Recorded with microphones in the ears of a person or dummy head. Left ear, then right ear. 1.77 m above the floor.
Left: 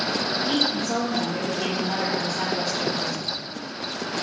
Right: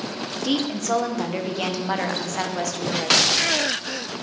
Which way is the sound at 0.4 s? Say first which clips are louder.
Right 3 dB; 45° right (ahead or behind).